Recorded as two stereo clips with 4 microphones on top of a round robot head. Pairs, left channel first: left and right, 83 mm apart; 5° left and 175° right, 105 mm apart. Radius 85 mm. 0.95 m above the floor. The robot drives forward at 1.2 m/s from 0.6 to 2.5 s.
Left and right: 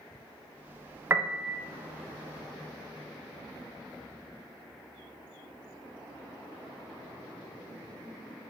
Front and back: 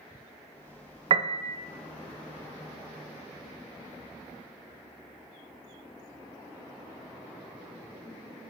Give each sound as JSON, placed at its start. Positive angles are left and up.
{"t": 1.1, "sound": "a piano", "azimuth_deg": -155, "distance_m": 0.6}